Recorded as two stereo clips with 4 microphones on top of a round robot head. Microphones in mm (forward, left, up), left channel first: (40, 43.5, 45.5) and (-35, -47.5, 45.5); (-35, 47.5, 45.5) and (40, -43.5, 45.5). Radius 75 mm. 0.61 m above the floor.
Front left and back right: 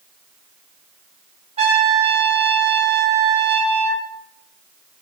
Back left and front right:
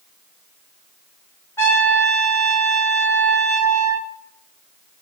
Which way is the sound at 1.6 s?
160° right.